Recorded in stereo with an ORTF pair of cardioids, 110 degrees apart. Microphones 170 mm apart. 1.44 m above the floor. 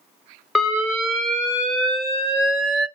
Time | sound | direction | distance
0.6 | an alarm | straight ahead | 1.2 m